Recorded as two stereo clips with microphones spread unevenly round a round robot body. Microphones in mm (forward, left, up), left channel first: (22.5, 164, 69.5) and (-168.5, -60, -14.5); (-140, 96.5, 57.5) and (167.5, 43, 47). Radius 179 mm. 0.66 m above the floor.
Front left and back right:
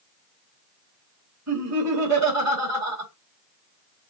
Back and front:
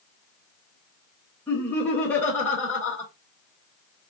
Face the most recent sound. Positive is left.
turn(degrees=-105)